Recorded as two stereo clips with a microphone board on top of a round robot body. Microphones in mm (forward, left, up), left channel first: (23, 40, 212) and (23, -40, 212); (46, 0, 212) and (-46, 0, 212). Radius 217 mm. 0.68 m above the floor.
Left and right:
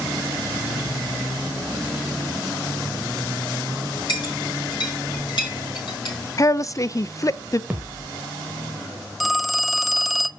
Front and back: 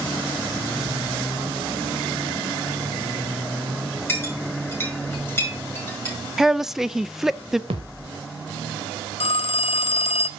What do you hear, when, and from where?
4.1 s a clink: 65° left, 7 m
6.4 s a woman speaking: 95° left, 0.7 m
7.7 s a thud: 165° right, 0.6 m
9.2 s a phone ringing: straight ahead, 0.5 m